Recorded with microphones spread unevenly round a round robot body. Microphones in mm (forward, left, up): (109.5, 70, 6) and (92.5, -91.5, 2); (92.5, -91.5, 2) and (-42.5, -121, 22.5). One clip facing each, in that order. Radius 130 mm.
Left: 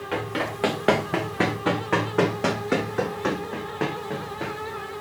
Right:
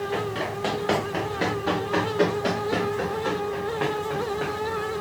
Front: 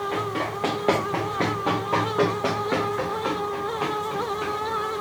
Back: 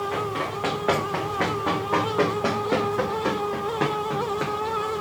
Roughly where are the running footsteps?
Left.